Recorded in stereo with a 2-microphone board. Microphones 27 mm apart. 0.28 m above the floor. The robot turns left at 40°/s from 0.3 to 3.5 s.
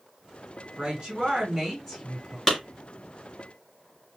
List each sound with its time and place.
0.8 s a woman speaking: 135° right, 3 m; by 2.4 s 160° left, 3 m
2.5 s a clap: 15° left (ahead or behind), 4 m; by 2.6 s 20° left (ahead or behind), 4 m